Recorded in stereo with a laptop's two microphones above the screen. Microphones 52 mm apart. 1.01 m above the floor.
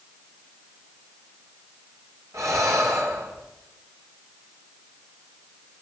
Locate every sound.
2.3 s breathing: 75° right (ahead or behind), 3 m